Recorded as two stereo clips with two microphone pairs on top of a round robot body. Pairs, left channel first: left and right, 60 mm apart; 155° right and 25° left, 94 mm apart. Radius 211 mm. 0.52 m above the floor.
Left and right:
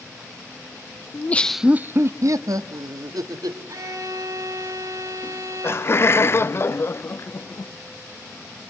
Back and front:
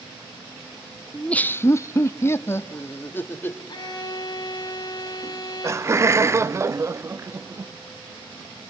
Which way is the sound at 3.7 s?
110° right.